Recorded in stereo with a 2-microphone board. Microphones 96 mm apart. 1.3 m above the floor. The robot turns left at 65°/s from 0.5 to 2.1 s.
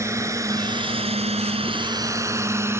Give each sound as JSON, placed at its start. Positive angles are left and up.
{"t": 0.0, "sound": "a drone", "side_deg": -30}